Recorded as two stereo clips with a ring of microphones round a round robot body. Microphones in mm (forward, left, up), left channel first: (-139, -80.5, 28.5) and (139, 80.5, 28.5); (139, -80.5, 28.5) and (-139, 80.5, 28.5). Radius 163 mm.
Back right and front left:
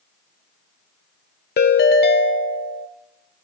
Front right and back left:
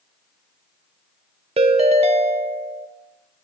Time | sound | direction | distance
1.6 | a ringtone | 160° right | 0.8 m